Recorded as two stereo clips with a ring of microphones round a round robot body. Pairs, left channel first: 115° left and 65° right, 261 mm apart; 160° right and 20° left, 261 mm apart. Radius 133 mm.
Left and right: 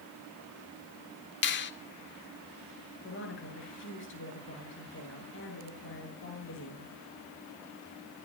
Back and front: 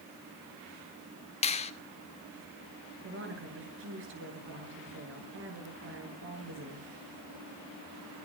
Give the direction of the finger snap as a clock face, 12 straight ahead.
7 o'clock.